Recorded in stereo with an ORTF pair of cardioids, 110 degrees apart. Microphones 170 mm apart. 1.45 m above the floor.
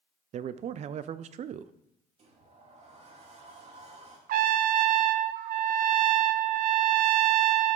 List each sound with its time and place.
0.3 s a man speaking: 50° right, 0.5 m
2.2 s a sliding door: 45° right, 2.5 m
4.3 s a trumpet: 65° right, 0.5 m